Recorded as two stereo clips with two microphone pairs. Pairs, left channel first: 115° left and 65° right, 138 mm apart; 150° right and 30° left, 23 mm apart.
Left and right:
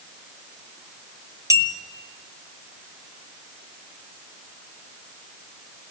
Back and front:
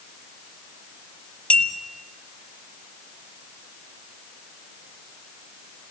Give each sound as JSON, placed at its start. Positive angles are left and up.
{"t": 1.5, "sound": "a clink", "azimuth_deg": -130, "distance_m": 1.7}